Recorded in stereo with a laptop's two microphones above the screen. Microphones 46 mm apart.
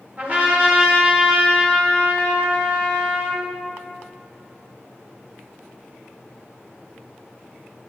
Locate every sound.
0.2 s a trumpet: 40° right (ahead or behind), 1.2 m